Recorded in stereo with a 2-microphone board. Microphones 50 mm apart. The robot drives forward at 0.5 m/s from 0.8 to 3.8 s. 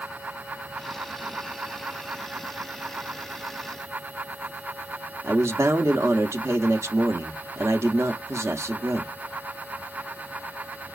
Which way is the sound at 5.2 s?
65° right (ahead or behind).